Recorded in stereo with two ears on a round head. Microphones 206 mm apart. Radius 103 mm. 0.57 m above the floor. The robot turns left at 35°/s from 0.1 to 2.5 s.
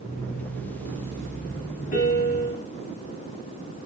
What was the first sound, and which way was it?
A piano, 40° left (ahead or behind).